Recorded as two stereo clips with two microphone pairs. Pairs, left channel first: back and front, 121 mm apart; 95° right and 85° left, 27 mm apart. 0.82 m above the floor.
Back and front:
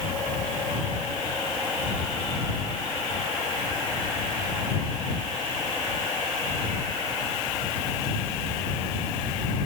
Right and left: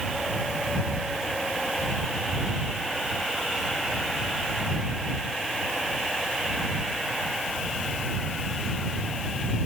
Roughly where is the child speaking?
I don't hear a child speaking.